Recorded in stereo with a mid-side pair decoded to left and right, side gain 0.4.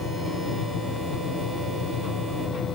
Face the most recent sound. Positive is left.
turn(degrees=70)